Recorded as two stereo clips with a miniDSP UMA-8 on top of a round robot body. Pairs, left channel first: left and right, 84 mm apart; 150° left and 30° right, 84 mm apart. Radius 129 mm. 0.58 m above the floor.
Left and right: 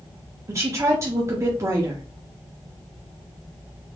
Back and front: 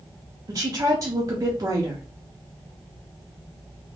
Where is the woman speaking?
55° right, 0.9 m.